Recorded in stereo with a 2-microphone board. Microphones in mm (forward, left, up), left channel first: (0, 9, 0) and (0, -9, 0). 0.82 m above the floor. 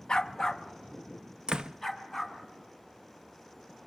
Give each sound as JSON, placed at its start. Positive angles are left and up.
{"t": 0.1, "sound": "a dog barking", "side_deg": 40, "distance_m": 0.7}
{"t": 1.5, "sound": "a door slam", "side_deg": -55, "distance_m": 0.6}